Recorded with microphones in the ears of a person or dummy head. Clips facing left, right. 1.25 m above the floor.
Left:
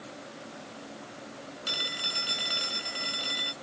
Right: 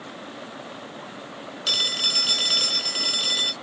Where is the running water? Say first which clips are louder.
Right 6 dB; 70° right (ahead or behind).